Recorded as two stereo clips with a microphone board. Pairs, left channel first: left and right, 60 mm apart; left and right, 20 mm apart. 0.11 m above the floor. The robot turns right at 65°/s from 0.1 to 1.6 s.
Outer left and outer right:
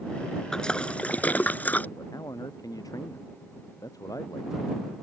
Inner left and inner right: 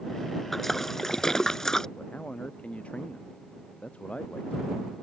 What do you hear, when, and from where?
0.5 s a splash: 10° left (ahead or behind); by 1.9 s 30° left (ahead or behind)
2.0 s a man speaking: 85° left